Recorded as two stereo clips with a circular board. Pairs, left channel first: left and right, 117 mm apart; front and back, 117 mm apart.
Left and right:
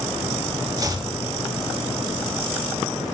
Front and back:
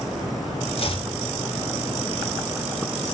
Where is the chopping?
35° right, 1.7 m.